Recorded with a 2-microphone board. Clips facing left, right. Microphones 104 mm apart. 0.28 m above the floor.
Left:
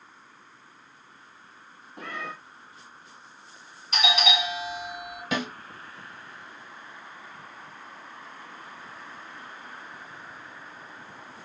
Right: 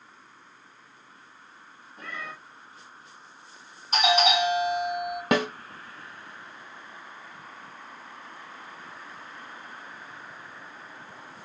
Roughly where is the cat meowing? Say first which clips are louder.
Left 3 dB; left.